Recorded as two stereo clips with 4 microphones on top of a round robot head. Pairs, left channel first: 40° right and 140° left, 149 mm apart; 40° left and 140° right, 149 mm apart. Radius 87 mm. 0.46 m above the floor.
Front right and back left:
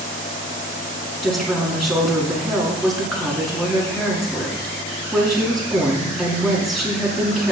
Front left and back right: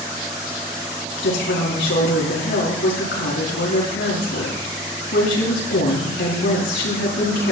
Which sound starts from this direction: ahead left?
A woman speaking, at 1.2 s.